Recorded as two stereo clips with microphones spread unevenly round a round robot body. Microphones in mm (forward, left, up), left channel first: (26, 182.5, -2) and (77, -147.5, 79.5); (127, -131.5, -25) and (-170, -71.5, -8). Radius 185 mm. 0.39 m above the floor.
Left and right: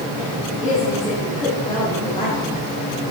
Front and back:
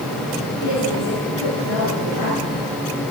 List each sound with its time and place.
0.6 s a woman speaking: 20° left, 4.5 m; by 2.7 s 25° left, 6.5 m